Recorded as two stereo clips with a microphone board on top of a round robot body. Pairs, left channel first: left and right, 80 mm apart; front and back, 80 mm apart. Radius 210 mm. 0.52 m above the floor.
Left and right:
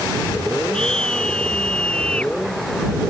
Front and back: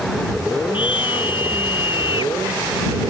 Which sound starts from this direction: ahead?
A scream, at 0.7 s.